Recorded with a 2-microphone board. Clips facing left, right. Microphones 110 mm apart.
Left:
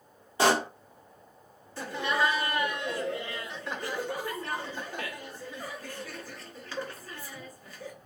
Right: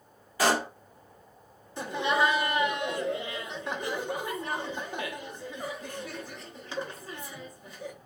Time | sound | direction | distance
0.4 | a pop | 30° left (ahead or behind) | 1.2 m
1.8 | laughter | 20° right (ahead or behind) | 0.8 m